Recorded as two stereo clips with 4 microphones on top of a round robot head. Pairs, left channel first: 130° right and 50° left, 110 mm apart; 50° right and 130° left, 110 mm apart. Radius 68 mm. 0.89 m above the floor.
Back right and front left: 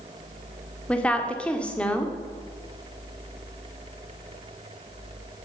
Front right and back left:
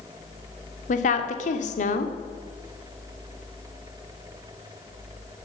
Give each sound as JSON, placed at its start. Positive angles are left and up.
{"t": 0.9, "sound": "a woman speaking", "azimuth_deg": -50, "distance_m": 2.0}